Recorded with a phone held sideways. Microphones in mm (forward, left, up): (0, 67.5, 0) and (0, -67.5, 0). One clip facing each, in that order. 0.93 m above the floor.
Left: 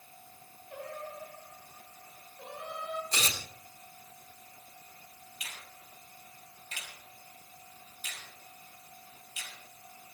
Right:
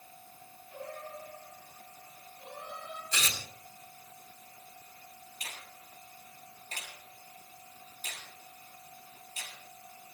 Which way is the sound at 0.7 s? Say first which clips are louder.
Left 1 dB; 80° left.